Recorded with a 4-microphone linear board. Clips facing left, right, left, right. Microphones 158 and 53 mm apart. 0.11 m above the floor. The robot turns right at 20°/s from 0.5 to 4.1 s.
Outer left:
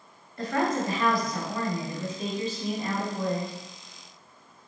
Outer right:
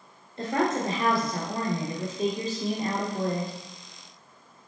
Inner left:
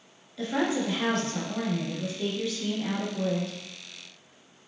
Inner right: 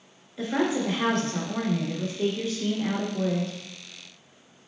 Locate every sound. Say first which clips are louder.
0.4 s a woman speaking: outer right 1 dB, inner right 2 dB; 140° right, 1.4 m; by 3.6 s 75° right, 1.4 m